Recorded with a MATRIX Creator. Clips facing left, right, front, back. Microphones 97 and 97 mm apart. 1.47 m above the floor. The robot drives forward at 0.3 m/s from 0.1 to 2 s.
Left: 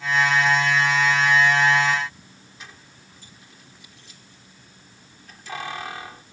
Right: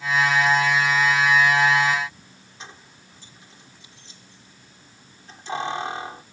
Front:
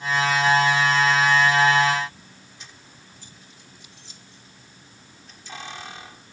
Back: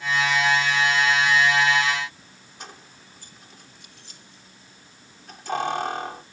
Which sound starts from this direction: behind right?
Keys jangling, at 2.6 s.